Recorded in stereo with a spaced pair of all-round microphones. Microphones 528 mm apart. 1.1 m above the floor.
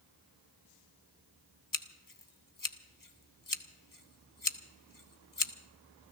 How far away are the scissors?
About 0.8 m.